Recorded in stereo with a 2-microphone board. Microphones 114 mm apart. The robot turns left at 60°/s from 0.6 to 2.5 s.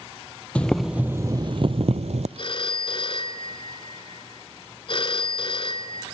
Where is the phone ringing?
50° left (ahead or behind), 1.6 m.